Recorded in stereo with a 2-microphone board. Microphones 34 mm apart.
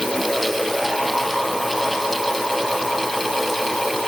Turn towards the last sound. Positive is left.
No sound to turn to.